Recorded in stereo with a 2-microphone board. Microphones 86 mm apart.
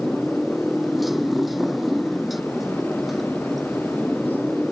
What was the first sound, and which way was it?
A motorcycle, centre (ahead or behind).